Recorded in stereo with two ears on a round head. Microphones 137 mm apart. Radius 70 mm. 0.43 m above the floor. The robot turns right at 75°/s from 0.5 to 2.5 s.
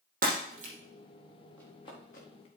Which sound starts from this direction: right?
Breaking glass, at 0.2 s.